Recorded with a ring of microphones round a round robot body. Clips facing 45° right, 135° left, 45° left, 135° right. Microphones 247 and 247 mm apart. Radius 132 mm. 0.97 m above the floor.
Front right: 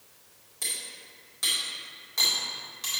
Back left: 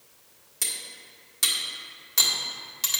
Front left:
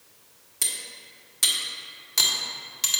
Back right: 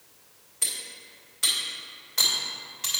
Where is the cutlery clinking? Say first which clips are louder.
Even, front left 1 dB; 80° left, 1.6 m.